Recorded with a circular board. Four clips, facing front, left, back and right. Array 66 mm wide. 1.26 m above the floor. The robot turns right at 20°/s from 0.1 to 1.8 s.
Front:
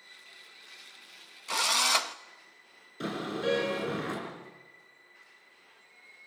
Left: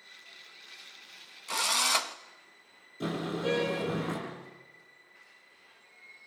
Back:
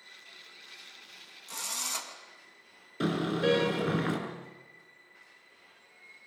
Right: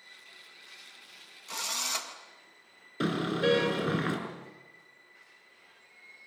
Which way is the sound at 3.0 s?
115° right.